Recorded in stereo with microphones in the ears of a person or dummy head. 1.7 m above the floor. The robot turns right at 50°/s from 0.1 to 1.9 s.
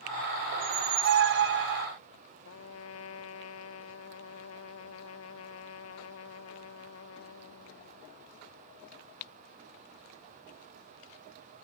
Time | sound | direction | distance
0.5 | a squeak | 140° right | ?
2.5 | a trumpet | 85° left | ?